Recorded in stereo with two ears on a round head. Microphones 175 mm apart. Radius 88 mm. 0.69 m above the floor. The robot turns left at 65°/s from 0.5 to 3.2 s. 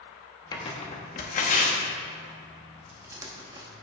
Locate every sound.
0.5 s tearing paper: 20° left (ahead or behind), 1.2 m; by 3.7 s 20° right (ahead or behind), 1.2 m